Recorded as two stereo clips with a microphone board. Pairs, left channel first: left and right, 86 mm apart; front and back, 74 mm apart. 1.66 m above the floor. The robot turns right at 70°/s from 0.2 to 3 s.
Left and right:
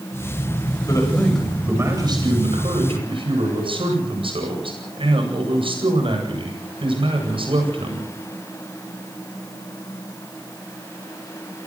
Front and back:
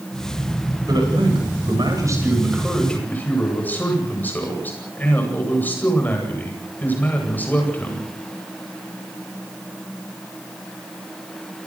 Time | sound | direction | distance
0.8 | a man speaking | 140° left | 9 m